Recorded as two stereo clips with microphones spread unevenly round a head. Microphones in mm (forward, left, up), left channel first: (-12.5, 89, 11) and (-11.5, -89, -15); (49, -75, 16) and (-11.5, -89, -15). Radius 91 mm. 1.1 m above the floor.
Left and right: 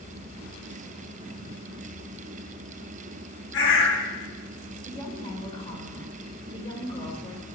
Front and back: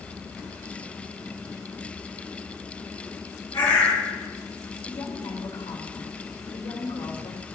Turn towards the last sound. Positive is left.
turn(degrees=25)